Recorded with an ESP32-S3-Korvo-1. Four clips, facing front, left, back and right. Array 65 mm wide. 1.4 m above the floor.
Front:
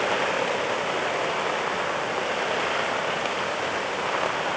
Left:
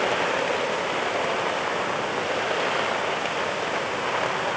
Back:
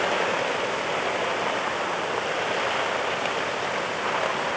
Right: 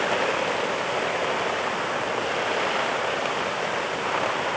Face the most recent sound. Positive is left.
No sound to turn to.